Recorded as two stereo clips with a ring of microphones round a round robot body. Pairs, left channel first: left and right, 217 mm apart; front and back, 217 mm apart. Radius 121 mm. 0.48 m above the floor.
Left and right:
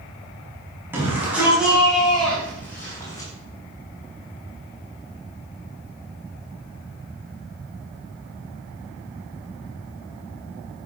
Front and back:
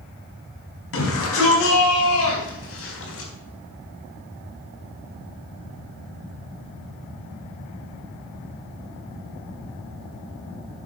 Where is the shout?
10° right, 5 m; by 3.3 s 15° left, 4.5 m.